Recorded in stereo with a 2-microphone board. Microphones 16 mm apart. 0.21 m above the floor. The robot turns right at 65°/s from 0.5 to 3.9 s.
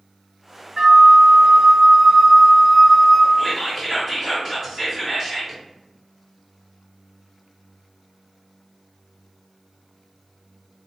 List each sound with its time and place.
0.8 s a flute: 100° right, 0.7 m; by 3.3 s 65° left, 0.7 m
3.4 s whispering: 140° right, 1.7 m; by 5.6 s 105° right, 1.7 m